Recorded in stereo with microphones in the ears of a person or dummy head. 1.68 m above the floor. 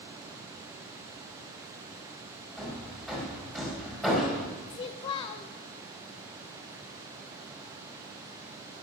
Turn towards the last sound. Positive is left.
turn(degrees=25)  # may be behind; listen again after turning